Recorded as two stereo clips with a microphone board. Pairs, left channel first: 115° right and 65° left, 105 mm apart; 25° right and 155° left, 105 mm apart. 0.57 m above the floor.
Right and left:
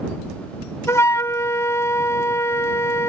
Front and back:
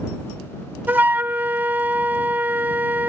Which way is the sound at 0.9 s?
145° right.